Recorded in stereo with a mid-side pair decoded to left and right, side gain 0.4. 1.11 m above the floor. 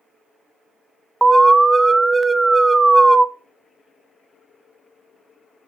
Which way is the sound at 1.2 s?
15° right.